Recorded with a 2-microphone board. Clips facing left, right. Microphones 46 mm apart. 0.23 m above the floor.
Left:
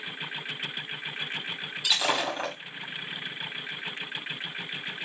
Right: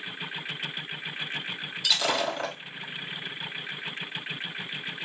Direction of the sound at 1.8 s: 15° left (ahead or behind).